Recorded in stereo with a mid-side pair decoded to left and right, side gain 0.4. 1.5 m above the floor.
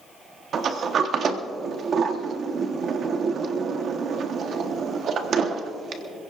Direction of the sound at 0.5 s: 60° right.